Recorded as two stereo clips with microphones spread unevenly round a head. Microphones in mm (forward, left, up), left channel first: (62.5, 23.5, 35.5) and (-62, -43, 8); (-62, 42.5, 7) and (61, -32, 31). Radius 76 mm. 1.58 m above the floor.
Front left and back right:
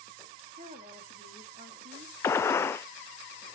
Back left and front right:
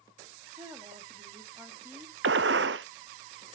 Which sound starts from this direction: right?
A woman speaking, at 0.6 s.